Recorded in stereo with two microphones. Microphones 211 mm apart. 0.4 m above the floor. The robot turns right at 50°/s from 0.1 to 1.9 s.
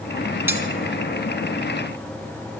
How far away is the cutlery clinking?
About 2 m.